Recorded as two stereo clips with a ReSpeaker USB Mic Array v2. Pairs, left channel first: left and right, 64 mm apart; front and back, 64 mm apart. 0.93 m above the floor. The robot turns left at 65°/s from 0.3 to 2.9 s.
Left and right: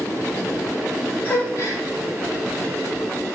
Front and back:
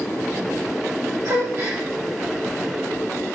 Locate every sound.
1.2 s a gasp: 155° left, 4.5 m; by 1.8 s 120° left, 4.5 m